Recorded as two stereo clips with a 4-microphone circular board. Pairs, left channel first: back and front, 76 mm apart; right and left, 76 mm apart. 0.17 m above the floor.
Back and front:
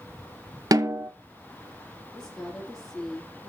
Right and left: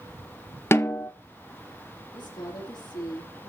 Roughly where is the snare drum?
Ahead right.